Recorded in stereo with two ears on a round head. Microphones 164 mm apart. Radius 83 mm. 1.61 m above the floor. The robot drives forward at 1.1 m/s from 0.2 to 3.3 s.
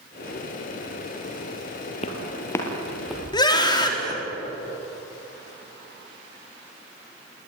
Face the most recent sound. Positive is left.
turn(degrees=25)  # may be behind; listen again after turning